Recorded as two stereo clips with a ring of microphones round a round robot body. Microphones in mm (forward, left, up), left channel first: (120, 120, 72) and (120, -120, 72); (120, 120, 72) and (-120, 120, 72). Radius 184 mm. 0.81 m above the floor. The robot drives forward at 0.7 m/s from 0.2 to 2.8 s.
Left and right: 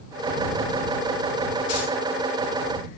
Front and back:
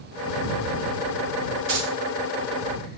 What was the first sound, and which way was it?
Keys jangling, 145° left.